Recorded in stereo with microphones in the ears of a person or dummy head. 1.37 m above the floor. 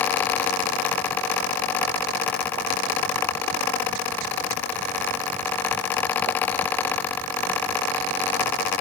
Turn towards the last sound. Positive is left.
No sound to turn to.